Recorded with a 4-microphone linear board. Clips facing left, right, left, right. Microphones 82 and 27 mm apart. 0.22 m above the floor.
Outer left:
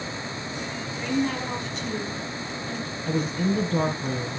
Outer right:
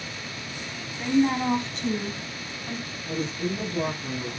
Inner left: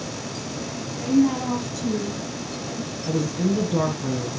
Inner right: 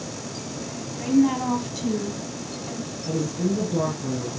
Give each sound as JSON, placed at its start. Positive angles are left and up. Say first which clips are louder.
{"t": 1.0, "sound": "a woman speaking", "louder": "outer right 4 dB, even", "side_deg": -25, "distance_m": 1.3}
{"t": 3.1, "sound": "a woman speaking", "louder": "outer left 4 dB, inner left 2 dB", "side_deg": 65, "distance_m": 3.0}